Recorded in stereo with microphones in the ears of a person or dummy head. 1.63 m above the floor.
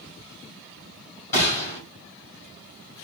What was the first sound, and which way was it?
A gunshot, 20° left (ahead or behind).